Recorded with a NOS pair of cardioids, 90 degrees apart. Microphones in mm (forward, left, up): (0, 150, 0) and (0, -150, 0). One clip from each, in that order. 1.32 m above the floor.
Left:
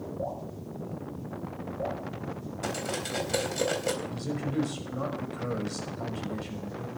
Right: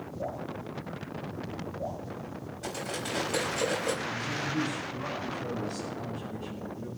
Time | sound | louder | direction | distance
0.2 | dripping | right 1 dB | 55° left | 6.5 m
2.6 | cutlery clinking | left 2 dB | 30° left | 3.5 m
4.1 | a man speaking | right 3 dB | 70° left | 5.5 m